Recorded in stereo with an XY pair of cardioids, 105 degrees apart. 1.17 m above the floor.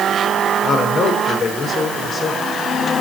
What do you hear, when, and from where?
0.6 s a man speaking: 55° left, 4.5 m